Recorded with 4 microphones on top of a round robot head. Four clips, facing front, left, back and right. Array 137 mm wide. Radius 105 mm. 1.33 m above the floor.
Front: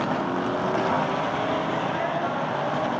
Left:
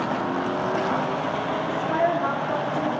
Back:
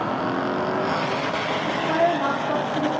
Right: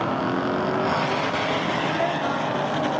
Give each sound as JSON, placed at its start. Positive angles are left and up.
{"t": 1.7, "sound": "a woman speaking", "azimuth_deg": 160, "distance_m": 4.0}